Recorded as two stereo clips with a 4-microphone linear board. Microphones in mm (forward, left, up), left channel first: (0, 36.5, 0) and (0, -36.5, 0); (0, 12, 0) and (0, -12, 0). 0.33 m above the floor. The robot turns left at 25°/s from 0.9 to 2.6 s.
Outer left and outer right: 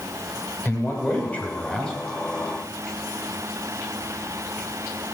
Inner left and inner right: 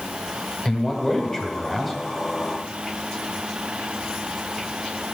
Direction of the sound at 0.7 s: 30° left (ahead or behind).